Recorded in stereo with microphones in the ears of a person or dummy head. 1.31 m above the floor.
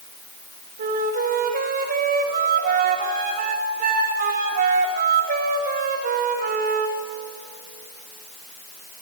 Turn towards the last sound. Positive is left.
turn(degrees=-55)  # may be behind; listen again after turning